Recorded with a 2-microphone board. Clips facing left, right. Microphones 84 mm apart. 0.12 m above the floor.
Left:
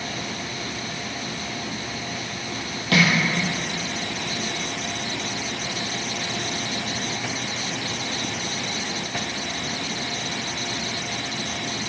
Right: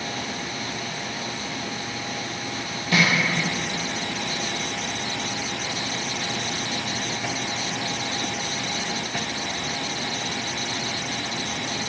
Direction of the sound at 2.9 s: 70° left (ahead or behind).